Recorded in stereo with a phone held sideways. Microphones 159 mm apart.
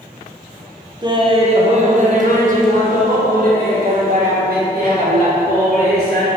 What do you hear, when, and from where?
1.0 s laughter: 30° right (ahead or behind), 1.0 m; by 6.3 s 75° right (ahead or behind), 3.5 m